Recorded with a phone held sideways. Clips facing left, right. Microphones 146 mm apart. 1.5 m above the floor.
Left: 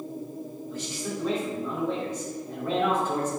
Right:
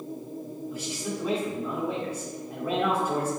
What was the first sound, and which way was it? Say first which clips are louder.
A man speaking: left 1 dB; 10° right (ahead or behind).